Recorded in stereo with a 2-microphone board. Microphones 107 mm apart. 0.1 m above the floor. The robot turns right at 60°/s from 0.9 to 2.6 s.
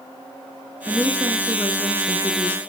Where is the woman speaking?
5° right (ahead or behind), 1.1 m; by 2.6 s 25° right (ahead or behind), 1.1 m.